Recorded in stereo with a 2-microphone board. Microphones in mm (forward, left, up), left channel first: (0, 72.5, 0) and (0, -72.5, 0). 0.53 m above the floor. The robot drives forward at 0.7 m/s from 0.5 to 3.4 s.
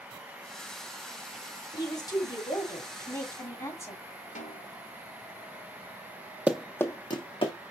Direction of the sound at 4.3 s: 60° left (ahead or behind).